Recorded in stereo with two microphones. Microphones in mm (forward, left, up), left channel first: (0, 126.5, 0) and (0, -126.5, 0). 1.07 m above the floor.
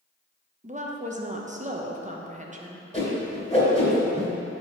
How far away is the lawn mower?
No lawn mower in this recording.